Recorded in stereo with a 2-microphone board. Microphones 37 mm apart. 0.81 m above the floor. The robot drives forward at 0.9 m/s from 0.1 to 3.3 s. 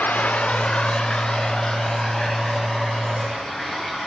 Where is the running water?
45° left (ahead or behind), 0.9 m; by 4.1 s 10° left (ahead or behind), 3.5 m.